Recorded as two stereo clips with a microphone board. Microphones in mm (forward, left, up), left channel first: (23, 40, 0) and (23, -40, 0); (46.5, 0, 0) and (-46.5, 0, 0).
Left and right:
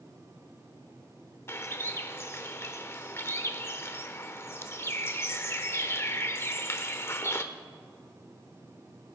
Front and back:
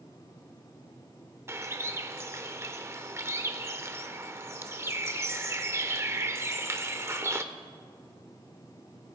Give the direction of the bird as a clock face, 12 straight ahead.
8 o'clock.